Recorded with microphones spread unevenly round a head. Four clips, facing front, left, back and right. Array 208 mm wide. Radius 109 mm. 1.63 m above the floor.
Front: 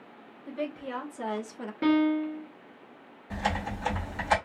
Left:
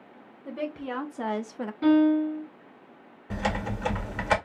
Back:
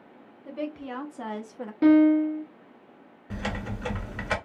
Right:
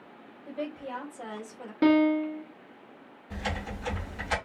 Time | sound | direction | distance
0.5 | a woman speaking | 90° left | 1.4 m
1.8 | a piano | 110° right | 0.8 m
3.3 | typing on a keyboard | 95° left | 1.8 m